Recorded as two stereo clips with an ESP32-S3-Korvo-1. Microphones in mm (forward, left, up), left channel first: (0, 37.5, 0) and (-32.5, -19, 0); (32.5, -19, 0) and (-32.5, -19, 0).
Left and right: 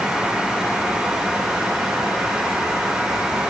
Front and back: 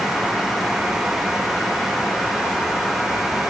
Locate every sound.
Only background noise.